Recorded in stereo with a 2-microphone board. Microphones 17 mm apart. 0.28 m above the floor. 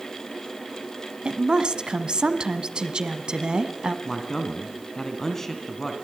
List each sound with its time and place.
1.2 s a woman speaking: 55° right (ahead or behind), 1.9 m
4.0 s a man speaking: 20° left (ahead or behind), 2.5 m